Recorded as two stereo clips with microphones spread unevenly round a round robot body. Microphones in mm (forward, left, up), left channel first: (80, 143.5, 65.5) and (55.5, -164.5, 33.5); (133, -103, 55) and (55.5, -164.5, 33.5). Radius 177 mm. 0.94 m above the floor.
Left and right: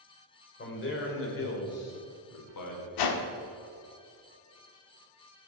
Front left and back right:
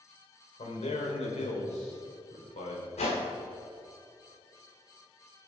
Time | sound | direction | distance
0.6 | a man speaking | 30° left | 4 m
3.0 | a whoosh | 75° left | 1.3 m